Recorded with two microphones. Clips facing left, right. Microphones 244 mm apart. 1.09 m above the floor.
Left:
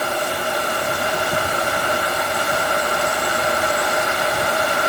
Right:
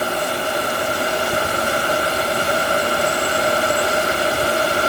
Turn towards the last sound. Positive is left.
No sound to turn to.